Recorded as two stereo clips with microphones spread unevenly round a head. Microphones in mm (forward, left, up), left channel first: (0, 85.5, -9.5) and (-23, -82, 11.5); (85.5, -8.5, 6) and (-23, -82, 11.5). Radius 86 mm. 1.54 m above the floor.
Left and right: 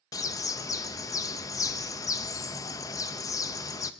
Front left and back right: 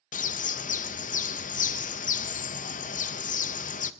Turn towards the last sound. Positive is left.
turn(degrees=10)